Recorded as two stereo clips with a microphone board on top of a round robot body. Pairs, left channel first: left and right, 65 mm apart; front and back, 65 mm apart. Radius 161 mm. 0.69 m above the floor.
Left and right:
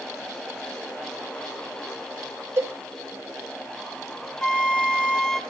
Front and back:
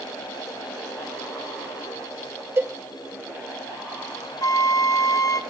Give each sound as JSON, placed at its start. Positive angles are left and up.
{"t": 2.6, "sound": "a cowbell", "azimuth_deg": -135, "distance_m": 1.8}
{"t": 4.4, "sound": "a flute", "azimuth_deg": 10, "distance_m": 2.0}